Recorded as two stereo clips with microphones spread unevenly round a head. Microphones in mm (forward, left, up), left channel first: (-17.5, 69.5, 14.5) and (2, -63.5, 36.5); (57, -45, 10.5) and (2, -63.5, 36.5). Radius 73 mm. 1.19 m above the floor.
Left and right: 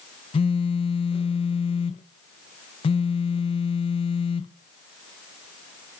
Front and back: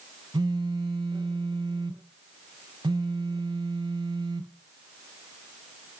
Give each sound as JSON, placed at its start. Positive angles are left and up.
{"t": 0.3, "sound": "a phone buzzing", "azimuth_deg": 150, "distance_m": 0.5}